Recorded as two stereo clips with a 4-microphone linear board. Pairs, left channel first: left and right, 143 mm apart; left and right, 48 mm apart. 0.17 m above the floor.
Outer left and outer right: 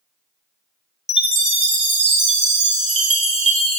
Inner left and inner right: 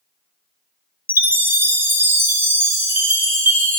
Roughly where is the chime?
Right.